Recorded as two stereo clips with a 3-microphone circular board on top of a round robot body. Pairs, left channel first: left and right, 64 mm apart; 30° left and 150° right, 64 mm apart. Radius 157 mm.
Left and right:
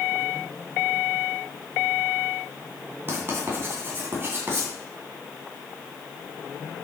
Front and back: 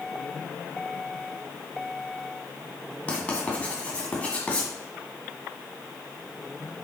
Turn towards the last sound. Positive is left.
turn(degrees=-40)